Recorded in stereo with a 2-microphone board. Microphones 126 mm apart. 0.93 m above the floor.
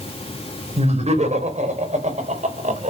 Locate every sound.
0.8 s laughter: 60° right (ahead or behind), 4 m; by 2.9 s 75° right (ahead or behind), 4 m